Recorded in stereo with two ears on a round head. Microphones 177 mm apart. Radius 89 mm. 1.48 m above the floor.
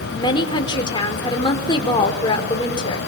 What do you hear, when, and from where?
0.1 s a woman speaking: 25° left (ahead or behind), 4.5 m